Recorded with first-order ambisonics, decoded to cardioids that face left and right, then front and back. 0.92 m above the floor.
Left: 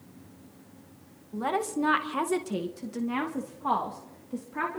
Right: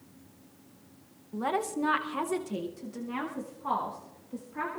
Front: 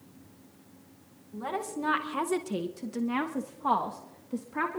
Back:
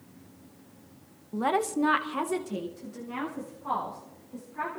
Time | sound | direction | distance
1.3 | a woman speaking | straight behind | 0.8 m